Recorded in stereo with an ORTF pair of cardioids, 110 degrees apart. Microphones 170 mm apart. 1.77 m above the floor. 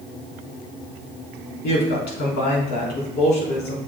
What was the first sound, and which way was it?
A woman speaking, 70° left.